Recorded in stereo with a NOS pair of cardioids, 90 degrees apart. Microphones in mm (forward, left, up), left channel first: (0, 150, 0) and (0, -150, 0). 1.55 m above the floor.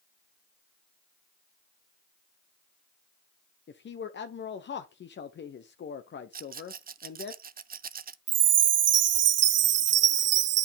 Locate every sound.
3.7 s a man speaking: 35° left, 0.8 m
6.3 s a rattle: 30° right, 0.5 m
8.3 s a chime: 55° right, 0.6 m